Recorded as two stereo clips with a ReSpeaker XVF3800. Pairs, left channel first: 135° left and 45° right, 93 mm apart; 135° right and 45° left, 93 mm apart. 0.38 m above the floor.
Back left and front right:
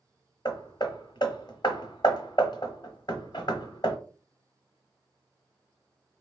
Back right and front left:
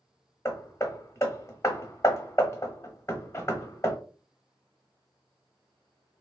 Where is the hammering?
165° left, 0.8 m.